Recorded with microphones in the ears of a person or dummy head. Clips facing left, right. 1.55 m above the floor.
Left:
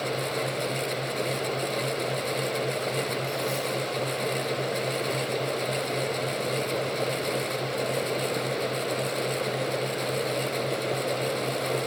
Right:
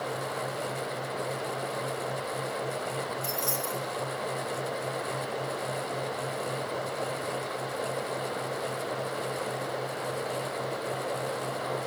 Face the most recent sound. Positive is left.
turn(degrees=-75)  # may be behind; listen again after turning